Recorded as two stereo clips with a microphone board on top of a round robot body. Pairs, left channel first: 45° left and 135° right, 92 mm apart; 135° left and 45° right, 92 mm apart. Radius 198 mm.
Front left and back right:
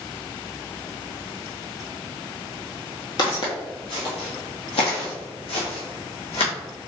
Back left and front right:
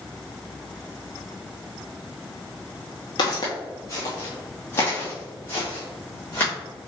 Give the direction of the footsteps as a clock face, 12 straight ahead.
9 o'clock.